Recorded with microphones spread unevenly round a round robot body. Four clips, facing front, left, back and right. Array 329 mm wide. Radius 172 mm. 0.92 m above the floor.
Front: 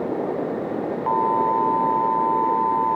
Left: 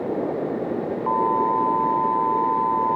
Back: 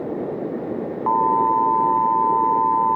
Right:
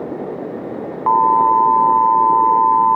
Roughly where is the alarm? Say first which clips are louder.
Right 9 dB, back 3 dB; right.